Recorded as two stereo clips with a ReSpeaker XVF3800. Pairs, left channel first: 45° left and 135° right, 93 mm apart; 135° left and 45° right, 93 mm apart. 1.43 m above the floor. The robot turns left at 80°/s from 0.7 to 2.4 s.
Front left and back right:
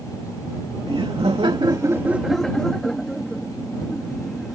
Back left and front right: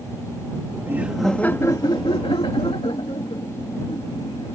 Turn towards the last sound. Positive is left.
turn(degrees=130)